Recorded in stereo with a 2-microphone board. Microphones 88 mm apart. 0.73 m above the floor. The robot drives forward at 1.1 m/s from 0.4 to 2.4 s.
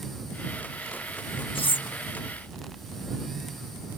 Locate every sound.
1.6 s cutlery clinking: 80° left; by 1.9 s 60° left (ahead or behind)